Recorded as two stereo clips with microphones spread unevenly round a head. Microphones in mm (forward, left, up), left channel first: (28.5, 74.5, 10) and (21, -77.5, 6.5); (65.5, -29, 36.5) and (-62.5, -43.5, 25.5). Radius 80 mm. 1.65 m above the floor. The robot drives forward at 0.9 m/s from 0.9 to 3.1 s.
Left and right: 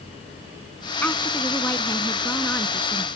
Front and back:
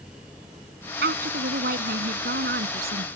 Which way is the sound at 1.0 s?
165° left.